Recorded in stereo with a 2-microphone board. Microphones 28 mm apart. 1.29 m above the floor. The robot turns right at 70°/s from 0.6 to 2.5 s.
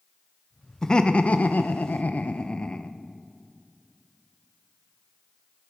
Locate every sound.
0.8 s laughter: 20° left, 0.7 m; by 3.0 s 140° left, 0.7 m